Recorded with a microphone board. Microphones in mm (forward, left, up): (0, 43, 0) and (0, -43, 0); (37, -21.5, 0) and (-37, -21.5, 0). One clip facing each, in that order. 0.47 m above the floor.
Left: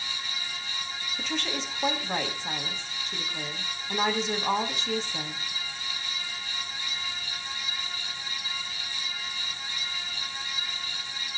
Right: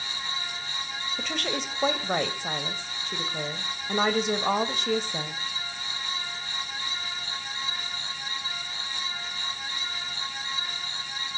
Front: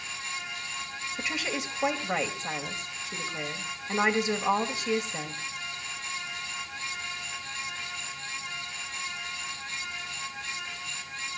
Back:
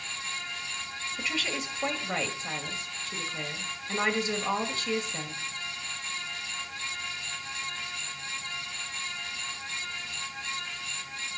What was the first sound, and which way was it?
A woman speaking, 75° right.